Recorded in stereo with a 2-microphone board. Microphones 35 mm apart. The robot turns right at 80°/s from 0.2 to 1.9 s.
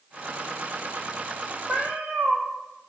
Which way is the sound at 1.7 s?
25° right (ahead or behind).